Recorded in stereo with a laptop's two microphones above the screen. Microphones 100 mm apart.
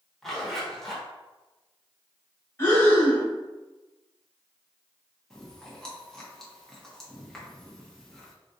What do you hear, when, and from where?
0.2 s a zipper: 5° left (ahead or behind), 0.9 m
2.6 s breathing: 25° left (ahead or behind), 1.3 m
5.3 s chewing: 5° left (ahead or behind), 1.0 m